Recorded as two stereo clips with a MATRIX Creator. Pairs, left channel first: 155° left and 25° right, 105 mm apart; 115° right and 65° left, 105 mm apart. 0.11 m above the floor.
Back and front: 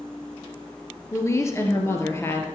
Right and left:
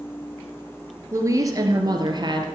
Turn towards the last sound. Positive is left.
turn(degrees=95)